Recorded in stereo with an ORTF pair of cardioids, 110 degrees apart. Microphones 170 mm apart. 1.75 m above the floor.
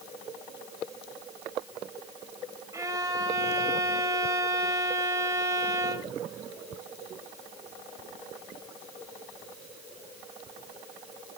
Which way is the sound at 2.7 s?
20° right.